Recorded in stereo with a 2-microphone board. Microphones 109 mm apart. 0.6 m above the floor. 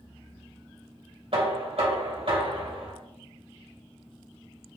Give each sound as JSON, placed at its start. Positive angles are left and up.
{"t": 1.3, "sound": "knocking", "side_deg": -60, "distance_m": 2.0}